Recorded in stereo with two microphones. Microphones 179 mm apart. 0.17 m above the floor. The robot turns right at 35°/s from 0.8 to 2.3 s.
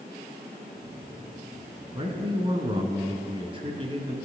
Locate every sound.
1.9 s a man speaking: 30° right (ahead or behind), 1.2 m